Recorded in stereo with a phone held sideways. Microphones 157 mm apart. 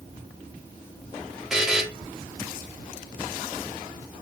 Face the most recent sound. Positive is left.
turn(degrees=-5)  # may be behind; listen again after turning